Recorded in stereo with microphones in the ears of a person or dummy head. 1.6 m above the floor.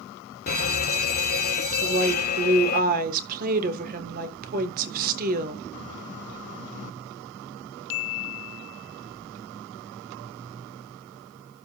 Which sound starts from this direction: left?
An alarm, at 0.5 s.